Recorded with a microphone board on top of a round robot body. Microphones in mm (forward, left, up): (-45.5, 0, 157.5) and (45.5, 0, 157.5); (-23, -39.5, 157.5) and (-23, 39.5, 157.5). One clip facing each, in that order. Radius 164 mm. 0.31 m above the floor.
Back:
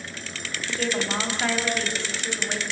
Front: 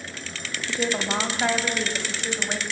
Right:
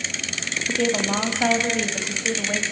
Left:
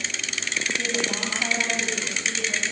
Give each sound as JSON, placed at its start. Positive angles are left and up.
{"t": 0.7, "sound": "a woman speaking", "azimuth_deg": -75, "distance_m": 3.0}